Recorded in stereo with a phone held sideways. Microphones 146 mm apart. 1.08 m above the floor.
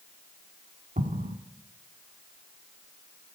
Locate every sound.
1.0 s an explosion: 70° right (ahead or behind), 1.2 m